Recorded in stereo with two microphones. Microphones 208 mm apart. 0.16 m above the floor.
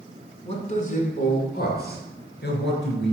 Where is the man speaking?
30° left (ahead or behind), 1.4 m; by 3.1 s 60° left (ahead or behind), 2.5 m.